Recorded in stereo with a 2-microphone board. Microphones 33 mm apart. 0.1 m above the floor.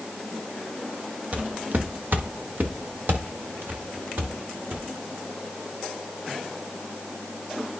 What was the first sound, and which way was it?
Footsteps, 50° right (ahead or behind).